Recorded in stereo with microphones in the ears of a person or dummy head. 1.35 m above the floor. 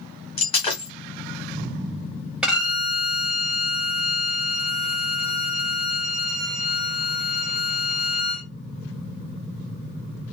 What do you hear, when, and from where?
0.4 s breaking glass: 35° left (ahead or behind), 2.5 m
2.4 s a violin: 5° right (ahead or behind), 1.6 m